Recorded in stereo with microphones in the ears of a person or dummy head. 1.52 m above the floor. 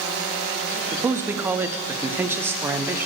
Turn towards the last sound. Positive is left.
turn(degrees=-15)  # may be behind; listen again after turning